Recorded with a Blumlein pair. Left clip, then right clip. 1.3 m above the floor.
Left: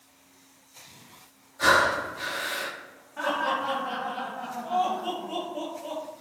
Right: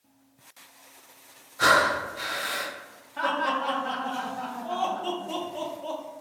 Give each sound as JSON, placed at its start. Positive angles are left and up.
{"t": 1.6, "sound": "breathing", "azimuth_deg": -70, "distance_m": 1.0}
{"t": 3.2, "sound": "laughter", "azimuth_deg": -15, "distance_m": 1.2}